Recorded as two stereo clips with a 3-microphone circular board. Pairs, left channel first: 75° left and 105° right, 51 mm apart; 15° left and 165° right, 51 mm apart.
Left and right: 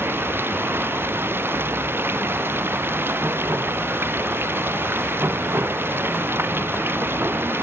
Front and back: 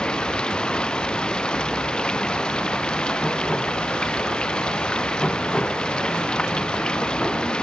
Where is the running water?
60° right.